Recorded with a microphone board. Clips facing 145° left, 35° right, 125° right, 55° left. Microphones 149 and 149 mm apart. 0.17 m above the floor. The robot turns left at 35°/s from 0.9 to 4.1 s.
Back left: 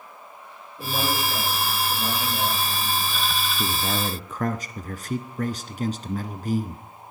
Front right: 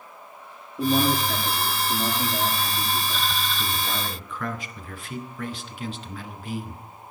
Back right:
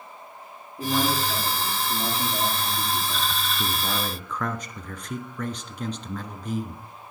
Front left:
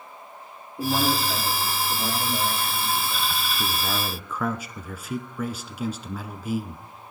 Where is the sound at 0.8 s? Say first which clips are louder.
Front right 6 dB, front left 1 dB; 10° right, 9.5 m; by 3.3 s 95° right, 9.5 m.